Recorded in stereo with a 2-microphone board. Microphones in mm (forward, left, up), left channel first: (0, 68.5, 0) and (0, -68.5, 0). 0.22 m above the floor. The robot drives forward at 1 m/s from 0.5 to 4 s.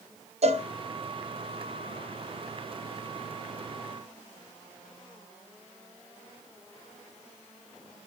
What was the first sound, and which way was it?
A cowbell, 50° right (ahead or behind).